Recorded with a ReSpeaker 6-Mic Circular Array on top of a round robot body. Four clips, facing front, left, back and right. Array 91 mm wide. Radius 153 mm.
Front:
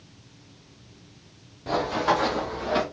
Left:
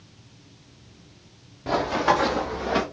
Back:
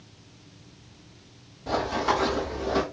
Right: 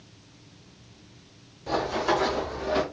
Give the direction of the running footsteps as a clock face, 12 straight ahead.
9 o'clock.